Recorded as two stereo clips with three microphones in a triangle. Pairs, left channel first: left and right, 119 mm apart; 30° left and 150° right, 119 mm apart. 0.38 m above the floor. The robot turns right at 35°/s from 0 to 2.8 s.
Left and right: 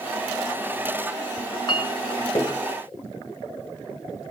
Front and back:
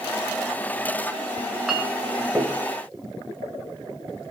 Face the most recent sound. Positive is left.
turn(degrees=160)